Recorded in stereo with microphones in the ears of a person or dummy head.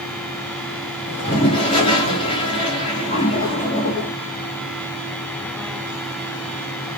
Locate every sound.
1.1 s a toilet flushing: 25° left (ahead or behind), 4 m